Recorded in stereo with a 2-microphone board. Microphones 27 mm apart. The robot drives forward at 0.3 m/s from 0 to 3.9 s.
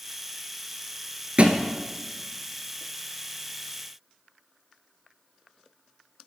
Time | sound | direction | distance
1.4 | a thud | 50° right (ahead or behind) | 1.2 m